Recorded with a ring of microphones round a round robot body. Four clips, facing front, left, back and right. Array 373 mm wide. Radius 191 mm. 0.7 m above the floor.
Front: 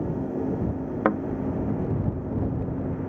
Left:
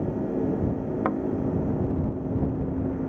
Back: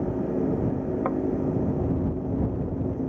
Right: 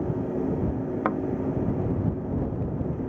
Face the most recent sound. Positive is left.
turn(degrees=-5)